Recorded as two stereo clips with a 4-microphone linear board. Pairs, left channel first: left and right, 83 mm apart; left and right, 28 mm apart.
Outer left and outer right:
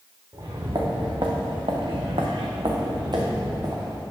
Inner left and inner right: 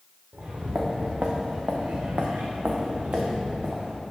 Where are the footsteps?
55° right (ahead or behind), 1.6 m; by 4.0 s 45° right (ahead or behind), 1.7 m.